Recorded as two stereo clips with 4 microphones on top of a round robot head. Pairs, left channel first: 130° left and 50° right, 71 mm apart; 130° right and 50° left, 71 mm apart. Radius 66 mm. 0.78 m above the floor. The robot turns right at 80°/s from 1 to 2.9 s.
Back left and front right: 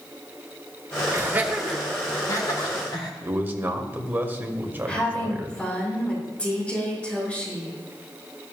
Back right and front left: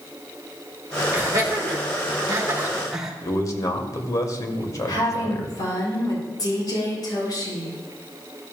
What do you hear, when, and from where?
1.1 s laughter: 5° right, 2.5 m; by 3.1 s 135° left, 2.5 m
3.2 s a man speaking: 110° right, 1.9 m
4.9 s a woman speaking: 160° right, 4 m